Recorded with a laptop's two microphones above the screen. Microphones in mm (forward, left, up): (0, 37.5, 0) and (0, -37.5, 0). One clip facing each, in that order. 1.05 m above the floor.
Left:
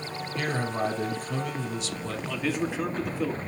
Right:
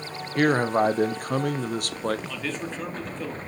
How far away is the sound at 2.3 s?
About 2 m.